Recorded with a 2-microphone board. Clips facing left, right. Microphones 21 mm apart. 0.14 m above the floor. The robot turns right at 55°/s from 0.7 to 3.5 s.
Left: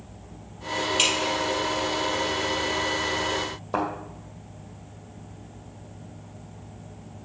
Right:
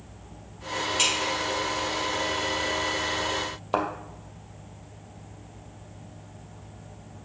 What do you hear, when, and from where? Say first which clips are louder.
1.0 s dripping: left 1 dB; 30° left (ahead or behind), 3.5 m; by 1.3 s 15° left (ahead or behind), 3.5 m
3.7 s a thud: even; 45° right (ahead or behind), 2 m